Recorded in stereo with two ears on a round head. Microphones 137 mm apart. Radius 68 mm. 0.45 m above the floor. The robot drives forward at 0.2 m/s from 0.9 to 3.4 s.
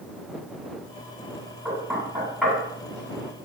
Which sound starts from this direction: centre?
Knocking, at 1.6 s.